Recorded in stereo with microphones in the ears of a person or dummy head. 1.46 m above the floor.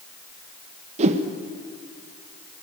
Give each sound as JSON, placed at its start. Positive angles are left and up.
{"t": 1.0, "sound": "a whoosh", "side_deg": -35, "distance_m": 1.3}